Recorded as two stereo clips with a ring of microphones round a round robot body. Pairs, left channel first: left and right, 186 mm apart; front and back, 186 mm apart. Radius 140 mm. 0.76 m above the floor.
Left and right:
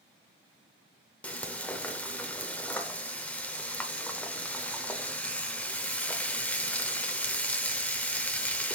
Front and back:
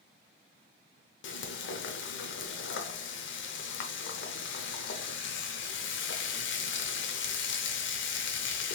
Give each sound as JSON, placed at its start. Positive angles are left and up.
{"t": 1.2, "sound": "frying", "azimuth_deg": 5, "distance_m": 0.8}